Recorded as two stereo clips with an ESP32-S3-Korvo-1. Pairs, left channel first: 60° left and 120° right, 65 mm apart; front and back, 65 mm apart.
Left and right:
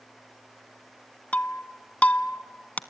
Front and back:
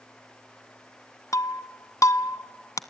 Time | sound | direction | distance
1.3 | breaking glass | 5° right | 0.8 m